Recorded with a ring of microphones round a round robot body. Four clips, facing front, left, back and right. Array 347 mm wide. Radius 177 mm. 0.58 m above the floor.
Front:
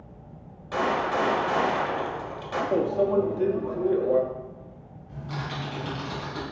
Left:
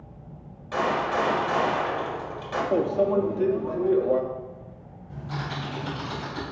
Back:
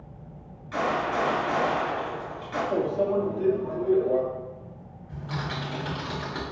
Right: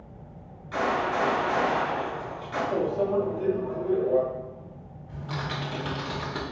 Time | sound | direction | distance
0.7 | a gunshot | 30° left | 1.3 m
2.7 | a microwave | 60° left | 0.6 m
5.1 | typing on a keyboard | 110° right | 1.6 m